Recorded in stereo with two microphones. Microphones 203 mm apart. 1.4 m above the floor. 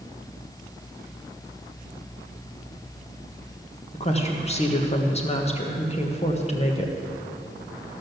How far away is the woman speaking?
About 1.4 m.